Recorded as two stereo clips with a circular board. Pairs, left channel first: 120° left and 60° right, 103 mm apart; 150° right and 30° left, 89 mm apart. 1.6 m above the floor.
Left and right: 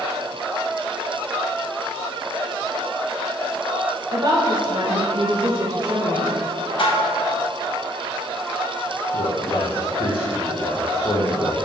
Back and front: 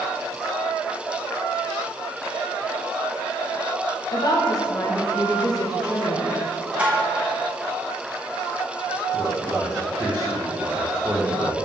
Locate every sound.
4.1 s a woman speaking: 105° right, 1.5 m
6.8 s dishes clattering: 105° left, 1.3 m
9.1 s a man speaking: 125° left, 1.3 m